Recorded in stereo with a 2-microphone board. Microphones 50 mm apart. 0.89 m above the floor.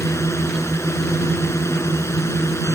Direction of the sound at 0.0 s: 75° left (ahead or behind).